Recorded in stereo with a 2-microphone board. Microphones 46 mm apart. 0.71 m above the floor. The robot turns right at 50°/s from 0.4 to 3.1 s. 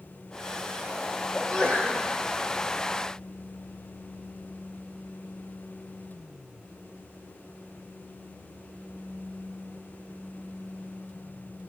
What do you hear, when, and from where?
1.4 s a sneeze: 5° left, 2.5 m; by 2.0 s 40° left, 2.5 m